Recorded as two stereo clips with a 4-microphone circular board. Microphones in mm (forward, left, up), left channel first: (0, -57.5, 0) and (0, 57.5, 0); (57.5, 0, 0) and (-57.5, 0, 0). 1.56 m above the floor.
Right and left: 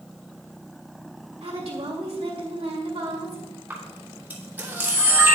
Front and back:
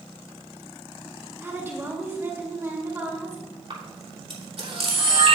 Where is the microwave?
No microwave in this recording.